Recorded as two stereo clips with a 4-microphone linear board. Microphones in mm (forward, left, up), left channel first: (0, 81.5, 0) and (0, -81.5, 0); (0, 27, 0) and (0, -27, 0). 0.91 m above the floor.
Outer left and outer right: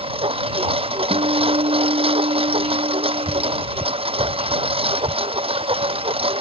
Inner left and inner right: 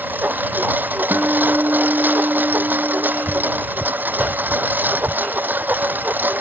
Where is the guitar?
45° right (ahead or behind).